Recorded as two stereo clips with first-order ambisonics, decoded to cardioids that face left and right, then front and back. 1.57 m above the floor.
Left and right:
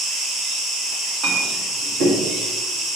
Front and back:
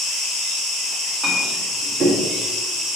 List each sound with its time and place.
0.0 s an insect: 45° right, 3.5 m
1.2 s a clink: 110° right, 2.0 m